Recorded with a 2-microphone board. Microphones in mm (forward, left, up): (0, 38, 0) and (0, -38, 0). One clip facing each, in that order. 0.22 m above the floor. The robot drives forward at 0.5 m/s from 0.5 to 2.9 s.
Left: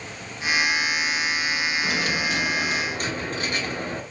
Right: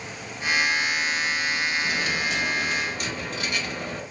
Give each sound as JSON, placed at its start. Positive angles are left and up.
{"t": 1.8, "sound": "a dropped coin", "side_deg": 60, "distance_m": 0.9}